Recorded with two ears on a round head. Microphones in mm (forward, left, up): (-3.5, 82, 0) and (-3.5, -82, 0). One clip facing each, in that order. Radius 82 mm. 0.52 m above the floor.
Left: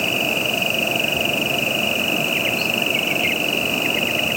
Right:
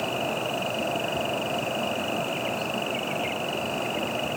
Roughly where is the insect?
Left.